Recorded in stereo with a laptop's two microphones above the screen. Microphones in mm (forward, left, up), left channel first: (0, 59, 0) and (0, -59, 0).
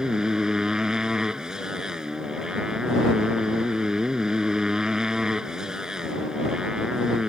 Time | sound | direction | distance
0.0 | a motorcycle | 5° right (ahead or behind) | ?